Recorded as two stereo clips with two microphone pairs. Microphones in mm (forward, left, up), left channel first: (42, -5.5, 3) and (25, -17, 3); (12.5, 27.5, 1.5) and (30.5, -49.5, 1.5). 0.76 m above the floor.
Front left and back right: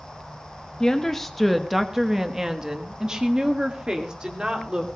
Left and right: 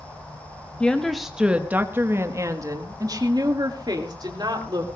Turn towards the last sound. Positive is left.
turn(degrees=-100)